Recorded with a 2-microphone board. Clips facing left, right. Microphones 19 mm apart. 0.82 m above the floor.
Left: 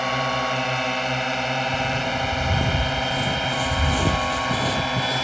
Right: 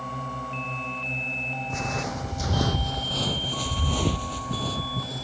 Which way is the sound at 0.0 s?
60° left (ahead or behind).